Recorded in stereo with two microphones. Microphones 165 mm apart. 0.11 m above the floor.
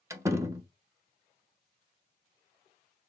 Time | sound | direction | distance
0.1 | a door slam | 15° right (ahead or behind) | 0.8 m